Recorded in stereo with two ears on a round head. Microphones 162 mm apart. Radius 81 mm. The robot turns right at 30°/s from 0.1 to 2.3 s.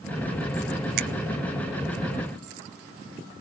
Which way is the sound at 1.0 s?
50° right (ahead or behind).